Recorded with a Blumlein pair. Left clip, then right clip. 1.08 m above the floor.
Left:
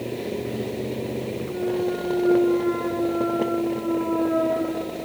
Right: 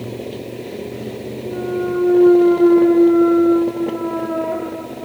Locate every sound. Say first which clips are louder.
1.4 s a clunk: right 4 dB; 25° right, 0.7 m